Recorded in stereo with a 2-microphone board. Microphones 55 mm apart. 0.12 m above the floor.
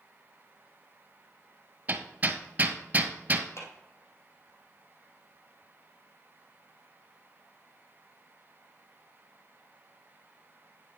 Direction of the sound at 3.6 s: 60° left (ahead or behind).